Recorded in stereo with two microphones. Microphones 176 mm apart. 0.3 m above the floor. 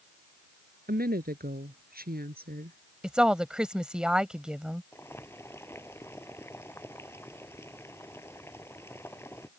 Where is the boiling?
15° left (ahead or behind).